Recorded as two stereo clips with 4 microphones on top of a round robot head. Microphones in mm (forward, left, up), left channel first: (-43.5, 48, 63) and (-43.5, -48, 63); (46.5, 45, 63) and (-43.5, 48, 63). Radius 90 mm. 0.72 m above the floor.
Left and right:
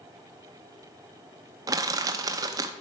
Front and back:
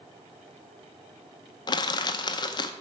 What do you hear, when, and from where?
1.7 s crushing: 35° right, 0.7 m